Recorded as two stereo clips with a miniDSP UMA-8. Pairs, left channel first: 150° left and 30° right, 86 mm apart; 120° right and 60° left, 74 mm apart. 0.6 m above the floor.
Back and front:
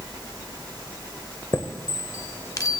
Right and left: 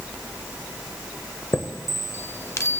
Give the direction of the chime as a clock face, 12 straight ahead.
6 o'clock.